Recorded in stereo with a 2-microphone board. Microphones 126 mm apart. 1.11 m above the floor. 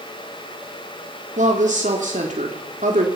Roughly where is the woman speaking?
Right.